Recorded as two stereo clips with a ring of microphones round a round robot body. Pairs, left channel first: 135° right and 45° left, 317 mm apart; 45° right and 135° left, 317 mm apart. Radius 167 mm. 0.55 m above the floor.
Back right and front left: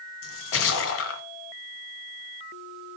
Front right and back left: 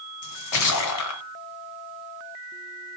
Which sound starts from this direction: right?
A splash, at 0.2 s.